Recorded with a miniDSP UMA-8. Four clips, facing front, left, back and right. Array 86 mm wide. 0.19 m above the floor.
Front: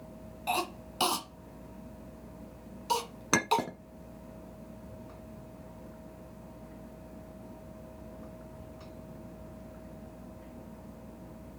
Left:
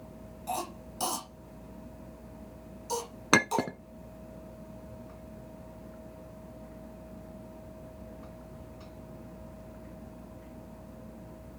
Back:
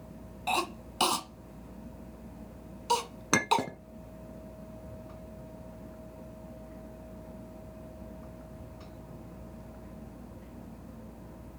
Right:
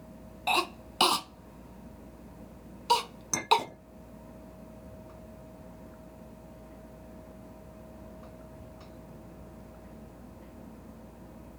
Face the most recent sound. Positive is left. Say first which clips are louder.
# left 1 dB, back 1 dB
turn(degrees=90)